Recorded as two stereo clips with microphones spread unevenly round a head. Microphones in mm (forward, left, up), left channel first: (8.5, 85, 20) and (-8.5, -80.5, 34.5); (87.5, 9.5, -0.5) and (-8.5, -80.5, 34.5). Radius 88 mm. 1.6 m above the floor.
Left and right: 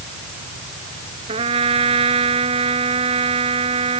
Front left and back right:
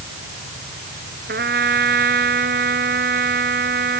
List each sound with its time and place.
1.3 s a trumpet: 155° right